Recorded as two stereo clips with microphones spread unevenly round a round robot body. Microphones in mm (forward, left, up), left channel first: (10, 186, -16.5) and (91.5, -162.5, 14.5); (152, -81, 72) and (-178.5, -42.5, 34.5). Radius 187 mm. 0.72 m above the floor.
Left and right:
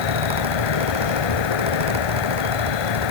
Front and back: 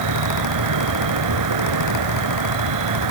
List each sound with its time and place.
0.0 s an insect: 130° left